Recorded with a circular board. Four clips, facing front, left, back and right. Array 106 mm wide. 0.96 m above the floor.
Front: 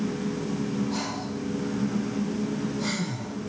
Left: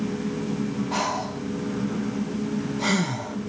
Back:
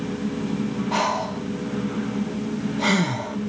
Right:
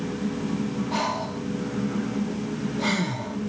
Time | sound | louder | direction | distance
0.9 | breathing | even, back 8 dB | 170° left | 0.5 m